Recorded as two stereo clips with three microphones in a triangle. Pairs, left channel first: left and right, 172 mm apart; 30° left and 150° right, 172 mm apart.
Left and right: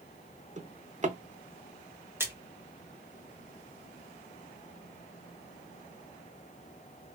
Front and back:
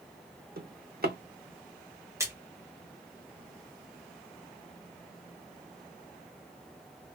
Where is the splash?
130° right, 1.0 m.